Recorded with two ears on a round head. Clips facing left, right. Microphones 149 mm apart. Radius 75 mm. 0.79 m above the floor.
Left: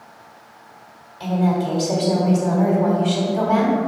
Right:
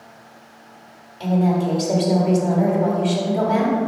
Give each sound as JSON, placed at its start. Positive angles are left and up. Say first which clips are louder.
{"t": 1.2, "sound": "a woman speaking", "louder": "right 1 dB", "side_deg": -25, "distance_m": 1.3}